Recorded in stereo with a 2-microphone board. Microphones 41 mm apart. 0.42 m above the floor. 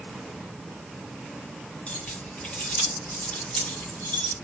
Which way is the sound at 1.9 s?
30° left (ahead or behind).